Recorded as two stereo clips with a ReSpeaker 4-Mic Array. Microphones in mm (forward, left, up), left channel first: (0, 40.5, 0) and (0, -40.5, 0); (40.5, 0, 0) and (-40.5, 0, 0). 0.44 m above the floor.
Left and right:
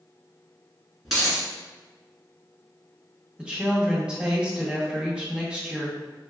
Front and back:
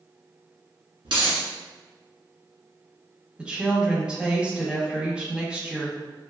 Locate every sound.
1.1 s a dropped coin: straight behind, 1.3 m
3.4 s a woman speaking: 140° right, 0.7 m